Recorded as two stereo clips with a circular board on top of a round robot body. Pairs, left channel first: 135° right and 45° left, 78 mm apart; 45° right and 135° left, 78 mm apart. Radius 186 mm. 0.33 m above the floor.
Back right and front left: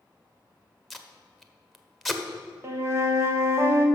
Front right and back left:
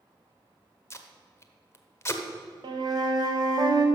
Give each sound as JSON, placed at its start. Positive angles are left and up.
{"t": 0.9, "sound": "tape being pulled", "azimuth_deg": -45, "distance_m": 0.9}
{"t": 2.6, "sound": "a flute", "azimuth_deg": 105, "distance_m": 0.7}